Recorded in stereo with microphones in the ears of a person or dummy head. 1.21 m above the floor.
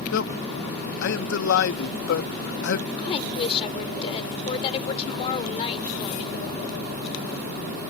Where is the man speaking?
65° left (ahead or behind).